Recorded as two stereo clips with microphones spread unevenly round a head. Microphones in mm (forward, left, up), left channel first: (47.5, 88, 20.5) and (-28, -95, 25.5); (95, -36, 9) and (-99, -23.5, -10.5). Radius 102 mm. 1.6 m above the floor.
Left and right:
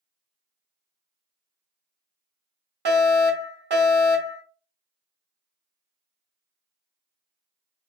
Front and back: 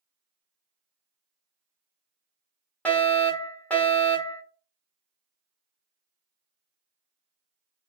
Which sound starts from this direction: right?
A fire alarm, at 2.9 s.